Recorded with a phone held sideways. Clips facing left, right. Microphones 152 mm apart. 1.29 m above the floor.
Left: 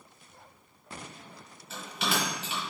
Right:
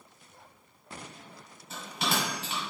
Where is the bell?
40° right (ahead or behind), 1.5 m.